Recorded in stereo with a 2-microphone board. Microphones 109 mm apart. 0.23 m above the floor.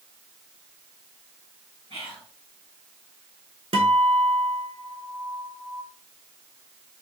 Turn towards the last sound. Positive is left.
turn(degrees=-65)  # may be behind; listen again after turning